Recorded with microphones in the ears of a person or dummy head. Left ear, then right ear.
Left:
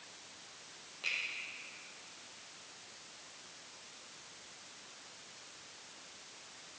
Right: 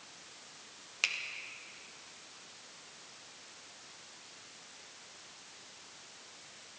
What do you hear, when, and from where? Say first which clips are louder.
1.0 s a finger snap: right 4 dB; 70° right (ahead or behind), 1.2 m